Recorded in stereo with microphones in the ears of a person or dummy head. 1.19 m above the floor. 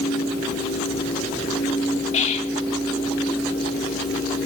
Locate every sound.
2.1 s whispering: 40° left (ahead or behind), 2 m